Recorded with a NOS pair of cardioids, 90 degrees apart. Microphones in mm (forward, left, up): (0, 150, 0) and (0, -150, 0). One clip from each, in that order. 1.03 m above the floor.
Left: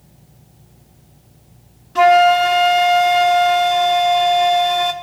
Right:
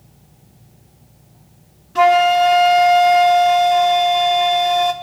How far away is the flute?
About 0.7 m.